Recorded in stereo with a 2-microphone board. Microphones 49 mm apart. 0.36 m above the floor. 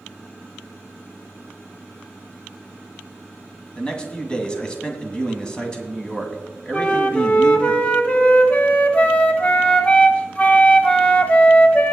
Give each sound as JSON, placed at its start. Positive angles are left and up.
{"t": 3.8, "sound": "a man speaking", "side_deg": 20, "distance_m": 2.0}
{"t": 6.7, "sound": "a flute", "side_deg": 25, "distance_m": 1.1}